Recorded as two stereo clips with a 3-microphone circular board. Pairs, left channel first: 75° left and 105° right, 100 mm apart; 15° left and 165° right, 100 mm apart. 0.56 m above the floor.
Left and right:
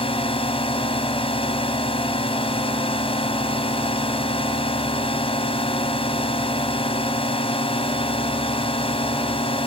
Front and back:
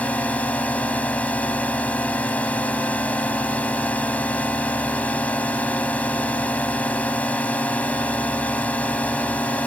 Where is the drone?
90° left.